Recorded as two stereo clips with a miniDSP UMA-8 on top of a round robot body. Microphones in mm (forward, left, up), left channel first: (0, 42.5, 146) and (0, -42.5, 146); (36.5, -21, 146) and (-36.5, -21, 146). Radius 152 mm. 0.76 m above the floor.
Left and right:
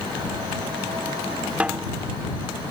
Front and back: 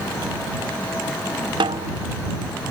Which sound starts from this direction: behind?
A snare drum, at 1.6 s.